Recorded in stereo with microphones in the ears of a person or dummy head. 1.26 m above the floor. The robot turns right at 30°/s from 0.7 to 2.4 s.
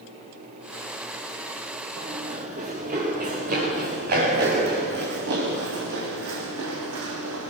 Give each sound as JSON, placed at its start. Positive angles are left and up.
{"t": 2.0, "sound": "running footsteps", "side_deg": -50, "distance_m": 8.0}